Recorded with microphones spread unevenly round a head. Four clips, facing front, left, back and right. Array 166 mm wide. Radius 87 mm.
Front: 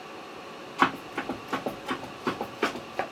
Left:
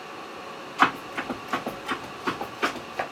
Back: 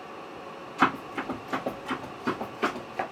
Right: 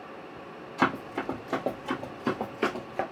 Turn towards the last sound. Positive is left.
turn(degrees=-60)